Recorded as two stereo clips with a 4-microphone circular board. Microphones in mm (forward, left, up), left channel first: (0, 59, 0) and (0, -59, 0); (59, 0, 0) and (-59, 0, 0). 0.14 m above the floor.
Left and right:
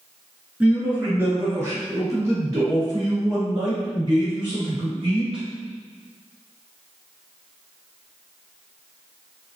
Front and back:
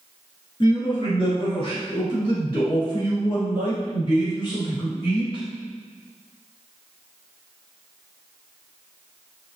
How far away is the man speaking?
About 2.0 m.